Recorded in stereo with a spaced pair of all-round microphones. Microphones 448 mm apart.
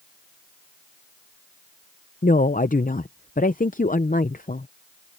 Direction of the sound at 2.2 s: 20° left (ahead or behind).